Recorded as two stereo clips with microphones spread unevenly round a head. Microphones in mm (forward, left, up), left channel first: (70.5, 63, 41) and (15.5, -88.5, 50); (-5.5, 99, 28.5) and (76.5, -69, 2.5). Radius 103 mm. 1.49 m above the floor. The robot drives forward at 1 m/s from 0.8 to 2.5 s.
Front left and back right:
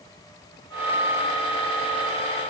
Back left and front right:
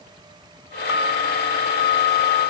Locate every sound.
Only background noise.